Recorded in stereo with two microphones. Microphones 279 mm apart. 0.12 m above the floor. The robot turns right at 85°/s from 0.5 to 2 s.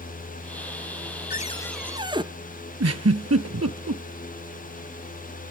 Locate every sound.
1.3 s a cupboard door: 140° left, 0.6 m; by 2.2 s 160° right, 0.6 m
2.8 s a giggle: 60° right (ahead or behind), 0.7 m